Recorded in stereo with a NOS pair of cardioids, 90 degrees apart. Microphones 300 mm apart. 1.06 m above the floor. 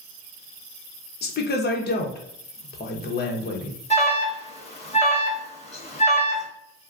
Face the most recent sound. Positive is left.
turn(degrees=20)